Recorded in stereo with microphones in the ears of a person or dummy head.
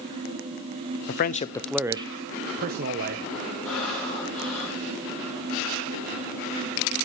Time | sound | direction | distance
1.1 | a man speaking | 55° left (ahead or behind) | 0.8 m
3.6 | breathing | 10° left (ahead or behind) | 9 m